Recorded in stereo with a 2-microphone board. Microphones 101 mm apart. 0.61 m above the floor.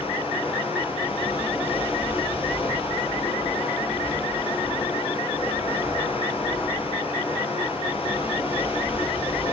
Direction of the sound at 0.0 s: 80° left.